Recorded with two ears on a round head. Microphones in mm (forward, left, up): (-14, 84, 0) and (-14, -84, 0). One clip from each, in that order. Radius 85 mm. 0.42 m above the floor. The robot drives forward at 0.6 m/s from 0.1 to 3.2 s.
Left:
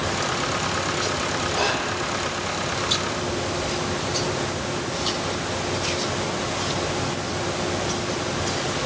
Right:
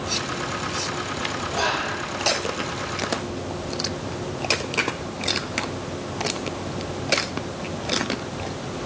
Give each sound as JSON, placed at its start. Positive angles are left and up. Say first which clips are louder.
{"t": 1.5, "sound": "whispering", "louder": "right 1 dB", "side_deg": 40, "distance_m": 1.9}